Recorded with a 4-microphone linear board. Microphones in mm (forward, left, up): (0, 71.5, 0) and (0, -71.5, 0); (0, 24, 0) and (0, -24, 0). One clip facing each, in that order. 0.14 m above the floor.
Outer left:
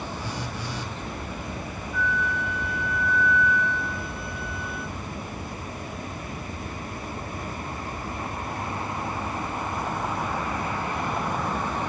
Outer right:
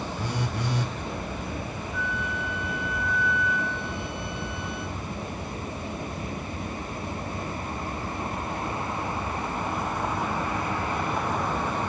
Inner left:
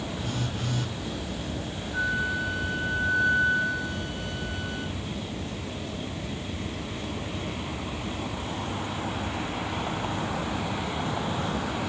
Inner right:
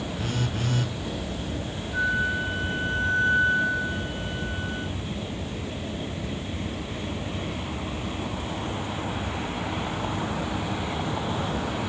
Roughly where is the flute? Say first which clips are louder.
Outer left 6 dB, inner right 3 dB; right.